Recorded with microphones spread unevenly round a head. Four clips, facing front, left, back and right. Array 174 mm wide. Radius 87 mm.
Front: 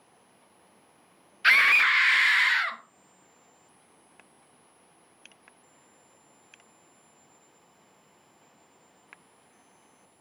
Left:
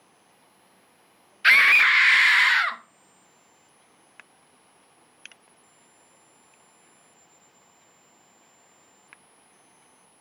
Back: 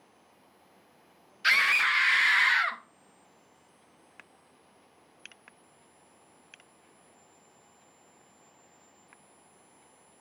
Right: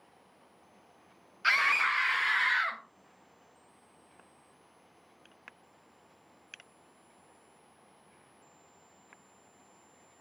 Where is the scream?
65° left, 0.9 m; by 2.8 s 145° left, 0.8 m.